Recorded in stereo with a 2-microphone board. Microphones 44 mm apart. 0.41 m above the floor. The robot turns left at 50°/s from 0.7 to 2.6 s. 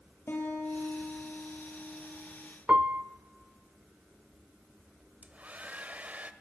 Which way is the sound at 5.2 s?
35° right (ahead or behind).